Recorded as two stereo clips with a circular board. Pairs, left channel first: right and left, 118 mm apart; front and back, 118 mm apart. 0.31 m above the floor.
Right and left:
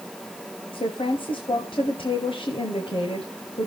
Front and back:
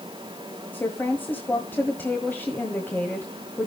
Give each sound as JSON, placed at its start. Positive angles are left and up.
{"t": 0.7, "sound": "a woman speaking", "azimuth_deg": -70, "distance_m": 1.3}